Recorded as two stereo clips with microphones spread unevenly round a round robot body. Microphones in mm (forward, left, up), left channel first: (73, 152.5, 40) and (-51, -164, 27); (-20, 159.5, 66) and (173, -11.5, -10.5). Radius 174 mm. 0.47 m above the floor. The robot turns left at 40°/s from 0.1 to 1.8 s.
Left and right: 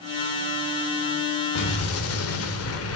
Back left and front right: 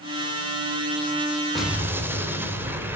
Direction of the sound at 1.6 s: 40° left.